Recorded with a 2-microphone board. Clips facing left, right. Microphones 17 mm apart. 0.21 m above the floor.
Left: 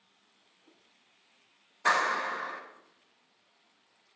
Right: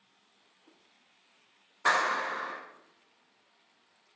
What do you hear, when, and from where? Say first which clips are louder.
1.9 s a clap: even; 30° right (ahead or behind), 1.7 m